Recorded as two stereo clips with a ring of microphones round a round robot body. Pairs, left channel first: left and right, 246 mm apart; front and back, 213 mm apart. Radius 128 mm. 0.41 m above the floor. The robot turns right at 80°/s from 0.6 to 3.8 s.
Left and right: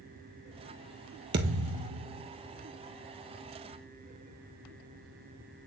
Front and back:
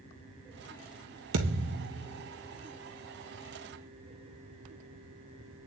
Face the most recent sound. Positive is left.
turn(degrees=55)